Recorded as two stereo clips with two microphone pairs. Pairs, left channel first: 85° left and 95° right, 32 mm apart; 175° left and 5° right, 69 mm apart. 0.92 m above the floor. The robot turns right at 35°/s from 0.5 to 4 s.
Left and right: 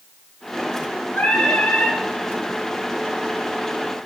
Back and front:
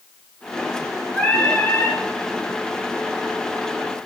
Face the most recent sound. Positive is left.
turn(degrees=-160)